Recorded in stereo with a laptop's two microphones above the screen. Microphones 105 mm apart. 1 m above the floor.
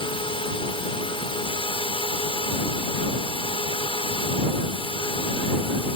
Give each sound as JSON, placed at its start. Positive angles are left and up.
{"t": 0.0, "sound": "a drone", "side_deg": 60}